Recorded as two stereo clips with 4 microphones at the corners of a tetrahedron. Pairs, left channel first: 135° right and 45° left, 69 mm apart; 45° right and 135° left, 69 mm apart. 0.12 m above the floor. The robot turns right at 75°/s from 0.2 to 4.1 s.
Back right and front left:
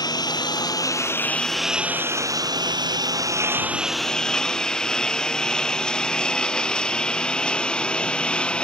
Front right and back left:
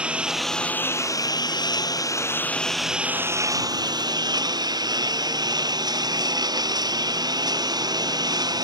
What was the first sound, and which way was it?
A lawn mower, 150° right.